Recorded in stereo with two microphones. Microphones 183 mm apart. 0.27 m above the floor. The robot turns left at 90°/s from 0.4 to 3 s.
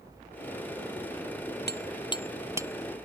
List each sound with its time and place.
1.7 s hammering: 65° left (ahead or behind); by 3.1 s 50° right (ahead or behind)